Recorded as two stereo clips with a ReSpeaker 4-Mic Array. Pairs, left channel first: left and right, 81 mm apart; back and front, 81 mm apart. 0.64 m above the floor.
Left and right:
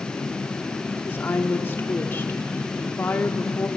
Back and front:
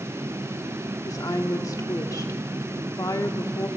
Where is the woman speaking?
150° left, 1.4 m.